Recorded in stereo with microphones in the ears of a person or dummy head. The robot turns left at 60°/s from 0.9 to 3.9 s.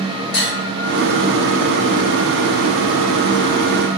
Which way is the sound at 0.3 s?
55° left (ahead or behind).